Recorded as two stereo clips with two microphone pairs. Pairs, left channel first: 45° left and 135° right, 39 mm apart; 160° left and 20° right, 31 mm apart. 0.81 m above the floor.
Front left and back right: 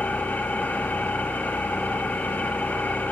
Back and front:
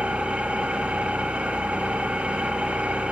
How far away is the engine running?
About 1.0 m.